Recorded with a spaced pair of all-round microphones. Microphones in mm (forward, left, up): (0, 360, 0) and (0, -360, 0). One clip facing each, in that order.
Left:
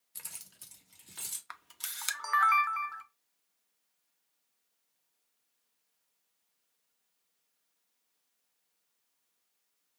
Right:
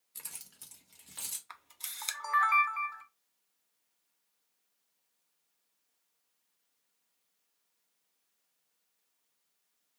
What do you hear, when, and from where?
0.1 s keys jangling: 30° left (ahead or behind), 0.6 m; by 1.4 s 15° right (ahead or behind), 1.5 m
1.5 s a camera shutter: 50° left (ahead or behind), 0.5 m